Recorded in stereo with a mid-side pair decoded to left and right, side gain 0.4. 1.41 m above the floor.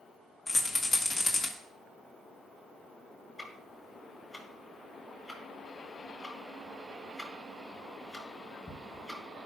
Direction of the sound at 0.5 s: 50° left.